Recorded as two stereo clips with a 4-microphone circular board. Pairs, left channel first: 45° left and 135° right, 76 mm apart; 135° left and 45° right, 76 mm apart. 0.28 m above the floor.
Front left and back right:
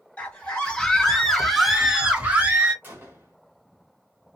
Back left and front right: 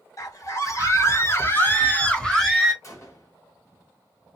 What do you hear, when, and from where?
0.2 s a scream: 115° left, 1.5 m; by 2.7 s 130° right, 0.9 m
2.8 s a gunshot: 165° left, 1.7 m